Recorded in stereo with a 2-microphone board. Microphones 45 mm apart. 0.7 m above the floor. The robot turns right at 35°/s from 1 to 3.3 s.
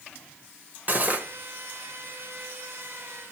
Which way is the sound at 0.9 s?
35° right (ahead or behind).